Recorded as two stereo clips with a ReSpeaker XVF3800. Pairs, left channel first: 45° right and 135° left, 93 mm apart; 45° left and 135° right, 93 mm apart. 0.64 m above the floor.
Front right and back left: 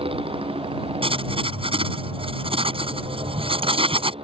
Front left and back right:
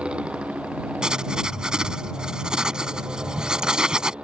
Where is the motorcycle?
145° left.